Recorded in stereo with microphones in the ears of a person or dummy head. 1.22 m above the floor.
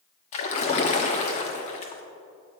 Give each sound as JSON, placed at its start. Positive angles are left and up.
{"t": 0.3, "sound": "a splash", "side_deg": 35, "distance_m": 0.9}